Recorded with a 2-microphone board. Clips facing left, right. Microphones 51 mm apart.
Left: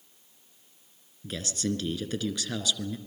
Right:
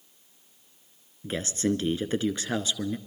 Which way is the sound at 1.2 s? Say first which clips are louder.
Right 4 dB; 30° right (ahead or behind).